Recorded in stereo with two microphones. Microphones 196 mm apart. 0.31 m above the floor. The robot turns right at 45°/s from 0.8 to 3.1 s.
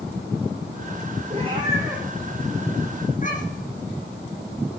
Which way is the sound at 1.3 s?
35° right (ahead or behind).